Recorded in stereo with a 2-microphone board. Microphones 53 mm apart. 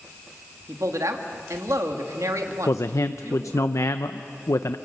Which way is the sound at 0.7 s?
75° right (ahead or behind).